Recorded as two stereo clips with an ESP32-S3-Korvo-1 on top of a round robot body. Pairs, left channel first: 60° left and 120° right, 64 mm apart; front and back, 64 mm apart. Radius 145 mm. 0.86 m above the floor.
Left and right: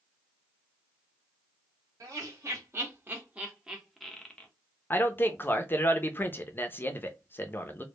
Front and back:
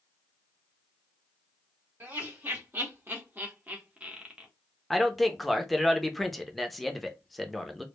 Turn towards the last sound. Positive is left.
turn(degrees=90)